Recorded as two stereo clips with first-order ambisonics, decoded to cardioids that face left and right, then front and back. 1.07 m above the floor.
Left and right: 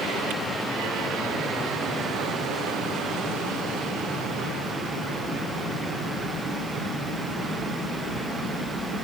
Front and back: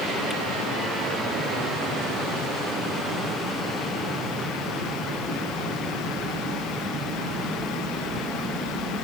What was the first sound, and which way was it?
Only background noise.